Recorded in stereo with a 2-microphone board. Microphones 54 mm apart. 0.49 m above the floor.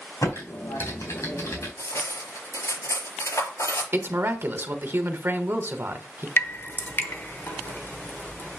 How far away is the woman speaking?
About 1.3 m.